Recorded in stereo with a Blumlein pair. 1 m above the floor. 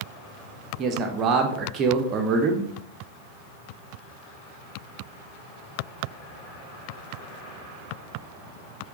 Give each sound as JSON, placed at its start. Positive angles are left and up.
{"t": 0.8, "sound": "a man speaking", "azimuth_deg": -30, "distance_m": 0.5}